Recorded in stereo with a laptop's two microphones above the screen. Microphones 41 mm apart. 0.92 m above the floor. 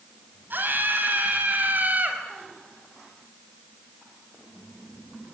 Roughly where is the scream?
Right.